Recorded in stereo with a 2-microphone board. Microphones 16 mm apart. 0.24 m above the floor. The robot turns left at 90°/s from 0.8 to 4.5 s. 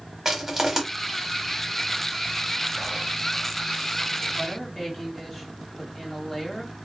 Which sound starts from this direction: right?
Crushing, at 0.2 s.